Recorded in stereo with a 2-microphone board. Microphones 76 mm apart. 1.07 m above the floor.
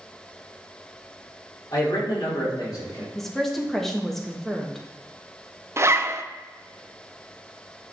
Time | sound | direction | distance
1.7 | a man speaking | 50° left (ahead or behind) | 3.5 m
3.1 | a woman speaking | 5° left (ahead or behind) | 1.5 m
5.8 | a zipper | 35° right (ahead or behind) | 0.6 m